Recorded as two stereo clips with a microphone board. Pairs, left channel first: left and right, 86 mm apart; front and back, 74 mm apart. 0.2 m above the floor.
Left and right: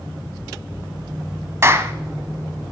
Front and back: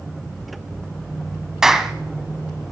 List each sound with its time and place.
1.6 s a clap: 100° right, 0.9 m